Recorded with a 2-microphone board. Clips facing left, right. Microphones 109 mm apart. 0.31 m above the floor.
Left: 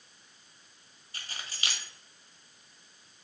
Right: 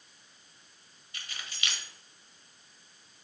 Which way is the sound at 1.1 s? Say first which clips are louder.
Left 1 dB; 35° left (ahead or behind).